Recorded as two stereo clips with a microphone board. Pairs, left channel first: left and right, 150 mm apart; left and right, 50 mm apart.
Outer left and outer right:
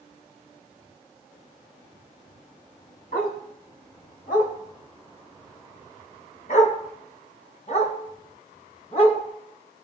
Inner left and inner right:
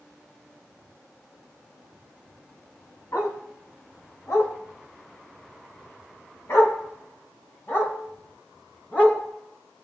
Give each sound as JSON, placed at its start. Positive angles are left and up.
{"t": 3.1, "sound": "a dog barking", "side_deg": 70, "distance_m": 3.0}